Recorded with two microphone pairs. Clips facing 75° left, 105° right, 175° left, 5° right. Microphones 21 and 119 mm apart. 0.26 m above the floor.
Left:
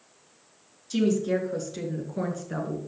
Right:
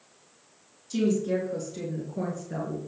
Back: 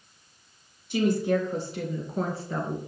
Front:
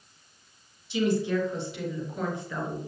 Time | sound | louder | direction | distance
0.9 | a woman speaking | left 1 dB, back 2 dB | 140° left | 3.5 m